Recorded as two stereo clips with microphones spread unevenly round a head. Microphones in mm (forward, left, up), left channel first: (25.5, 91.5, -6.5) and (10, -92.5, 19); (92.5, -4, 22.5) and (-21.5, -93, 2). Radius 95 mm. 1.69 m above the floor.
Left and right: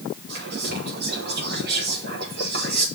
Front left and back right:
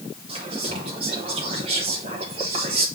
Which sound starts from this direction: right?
Whispering, at 0.3 s.